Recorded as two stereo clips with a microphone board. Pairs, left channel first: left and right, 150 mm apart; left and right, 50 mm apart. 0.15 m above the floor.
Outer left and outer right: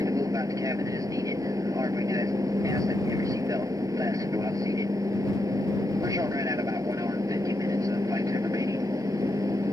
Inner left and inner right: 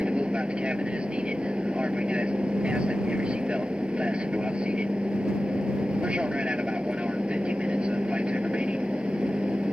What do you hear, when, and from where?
0.0 s an aircraft: 20° right (ahead or behind)